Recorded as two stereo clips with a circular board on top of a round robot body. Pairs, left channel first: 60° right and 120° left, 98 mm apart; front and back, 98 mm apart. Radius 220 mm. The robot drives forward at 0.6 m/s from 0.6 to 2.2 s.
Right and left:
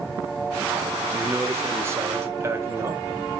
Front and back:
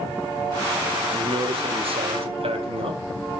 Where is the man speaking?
175° right, 2 m.